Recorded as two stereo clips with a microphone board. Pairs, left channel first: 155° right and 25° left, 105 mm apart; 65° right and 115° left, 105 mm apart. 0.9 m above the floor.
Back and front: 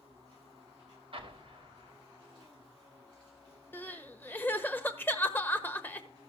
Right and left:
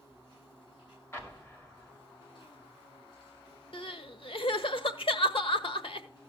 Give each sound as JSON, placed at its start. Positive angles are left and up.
{"t": 0.0, "sound": "an insect", "azimuth_deg": -25, "distance_m": 8.5}
{"t": 1.1, "sound": "an explosion", "azimuth_deg": 0, "distance_m": 2.0}
{"t": 3.7, "sound": "crying", "azimuth_deg": -90, "distance_m": 1.2}